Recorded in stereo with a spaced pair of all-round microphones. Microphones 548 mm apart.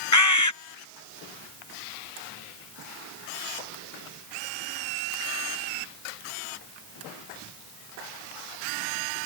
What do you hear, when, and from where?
0.1 s a bird: 30° left (ahead or behind)